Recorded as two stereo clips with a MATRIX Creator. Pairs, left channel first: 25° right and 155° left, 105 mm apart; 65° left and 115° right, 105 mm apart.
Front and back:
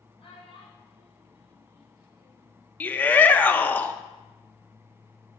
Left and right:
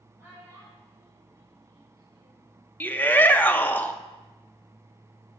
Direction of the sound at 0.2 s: 40° right.